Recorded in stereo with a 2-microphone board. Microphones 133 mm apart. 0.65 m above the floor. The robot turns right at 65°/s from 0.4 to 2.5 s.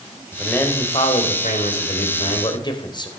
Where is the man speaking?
5° left, 2.5 m; by 3.1 s 140° left, 2.5 m.